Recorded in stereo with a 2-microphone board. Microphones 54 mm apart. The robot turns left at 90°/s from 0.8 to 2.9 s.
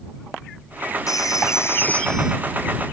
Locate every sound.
1.1 s a phone ringing: 105° left; by 2.4 s 15° right